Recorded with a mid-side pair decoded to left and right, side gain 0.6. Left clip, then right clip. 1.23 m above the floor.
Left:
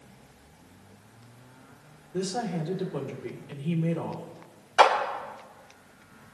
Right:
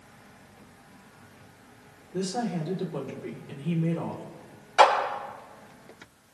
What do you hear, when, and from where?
2.1 s a woman speaking: 5° left, 4 m
4.8 s a clap: 5° left, 6 m